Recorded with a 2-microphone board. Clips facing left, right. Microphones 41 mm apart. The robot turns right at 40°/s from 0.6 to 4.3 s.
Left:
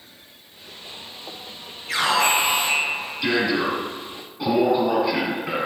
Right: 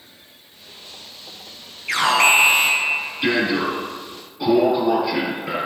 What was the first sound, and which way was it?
An alarm, 80° right.